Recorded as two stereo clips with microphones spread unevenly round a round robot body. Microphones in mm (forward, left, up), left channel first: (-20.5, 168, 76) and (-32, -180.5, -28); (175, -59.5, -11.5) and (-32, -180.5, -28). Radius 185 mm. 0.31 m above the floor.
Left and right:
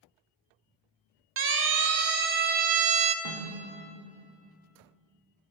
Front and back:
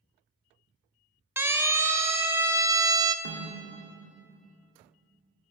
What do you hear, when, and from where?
1.4 s a siren: 75° right, 2 m; by 3.1 s 95° right, 1.6 m
3.2 s a snare drum: 130° right, 6.5 m